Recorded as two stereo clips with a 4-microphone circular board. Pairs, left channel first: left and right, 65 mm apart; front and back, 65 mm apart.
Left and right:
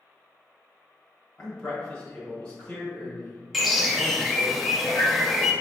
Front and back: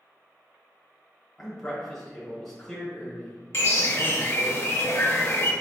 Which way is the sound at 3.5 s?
Straight ahead.